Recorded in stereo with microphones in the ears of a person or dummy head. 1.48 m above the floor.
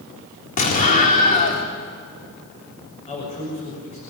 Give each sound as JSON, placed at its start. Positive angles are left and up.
{"t": 0.6, "sound": "an explosion", "side_deg": 40, "distance_m": 3.5}
{"t": 3.1, "sound": "a man speaking", "side_deg": 35, "distance_m": 6.0}